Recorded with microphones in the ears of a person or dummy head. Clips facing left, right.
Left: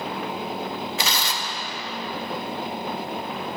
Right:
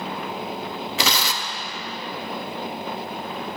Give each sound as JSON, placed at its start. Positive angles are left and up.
{"t": 1.0, "sound": "tearing paper", "side_deg": -65, "distance_m": 0.8}